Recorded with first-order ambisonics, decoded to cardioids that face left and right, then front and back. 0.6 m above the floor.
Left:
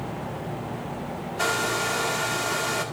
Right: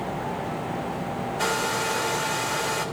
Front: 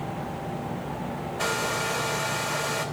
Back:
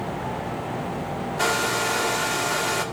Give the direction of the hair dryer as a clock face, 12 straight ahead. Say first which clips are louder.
Left 1 dB, back 4 dB; 7 o'clock.